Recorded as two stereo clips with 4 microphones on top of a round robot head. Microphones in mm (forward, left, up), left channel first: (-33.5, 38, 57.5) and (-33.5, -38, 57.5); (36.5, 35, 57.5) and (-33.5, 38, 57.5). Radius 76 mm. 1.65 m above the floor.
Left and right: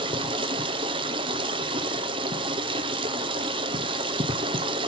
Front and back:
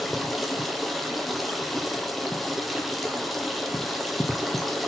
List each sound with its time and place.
0.0 s running water: 90° right, 0.7 m